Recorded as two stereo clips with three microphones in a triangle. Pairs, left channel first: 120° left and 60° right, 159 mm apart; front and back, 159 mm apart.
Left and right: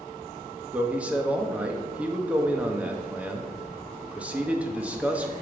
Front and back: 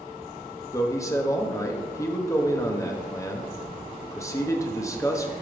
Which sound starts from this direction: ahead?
A man speaking, at 0.7 s.